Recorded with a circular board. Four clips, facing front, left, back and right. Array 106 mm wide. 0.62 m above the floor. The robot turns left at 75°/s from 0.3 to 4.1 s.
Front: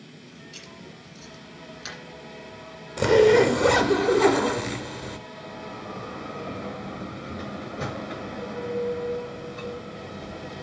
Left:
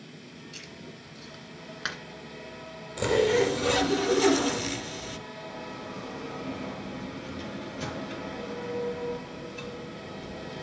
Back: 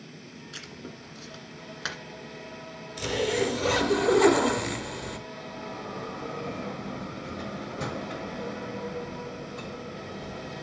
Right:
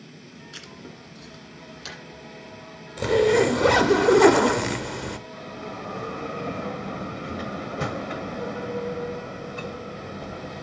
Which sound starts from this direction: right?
A bell, at 5.3 s.